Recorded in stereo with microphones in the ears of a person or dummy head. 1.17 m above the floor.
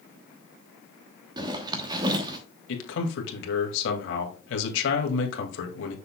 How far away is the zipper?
About 1.1 m.